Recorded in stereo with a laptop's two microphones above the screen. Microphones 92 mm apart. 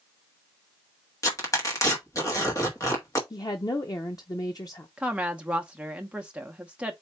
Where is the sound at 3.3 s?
45° left (ahead or behind), 0.6 m.